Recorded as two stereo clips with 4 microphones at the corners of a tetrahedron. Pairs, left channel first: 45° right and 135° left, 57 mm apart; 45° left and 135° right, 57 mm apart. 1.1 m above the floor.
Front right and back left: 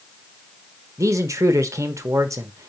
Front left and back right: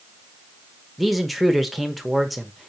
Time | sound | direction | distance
1.0 | a man speaking | 135° left | 1.1 m